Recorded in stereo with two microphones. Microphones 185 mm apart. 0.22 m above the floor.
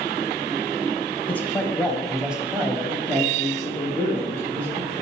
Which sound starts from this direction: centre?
A man speaking, at 1.3 s.